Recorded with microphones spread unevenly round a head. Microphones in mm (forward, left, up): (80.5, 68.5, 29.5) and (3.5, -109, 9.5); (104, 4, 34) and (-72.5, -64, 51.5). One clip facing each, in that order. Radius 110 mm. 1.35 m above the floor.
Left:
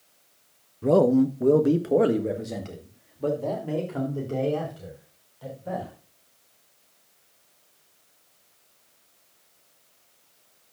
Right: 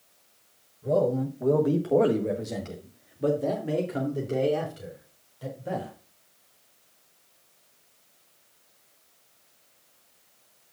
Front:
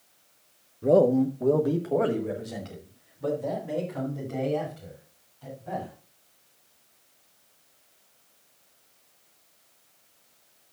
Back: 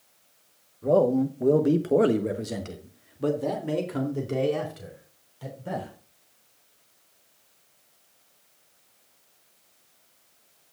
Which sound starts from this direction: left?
A man speaking, at 0.8 s.